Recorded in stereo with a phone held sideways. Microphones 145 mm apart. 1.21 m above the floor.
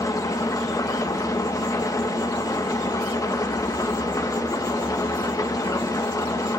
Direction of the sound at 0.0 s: 25° left (ahead or behind).